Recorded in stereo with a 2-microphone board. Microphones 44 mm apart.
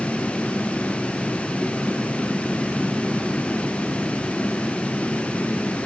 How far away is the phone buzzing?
I don't hear a phone buzzing.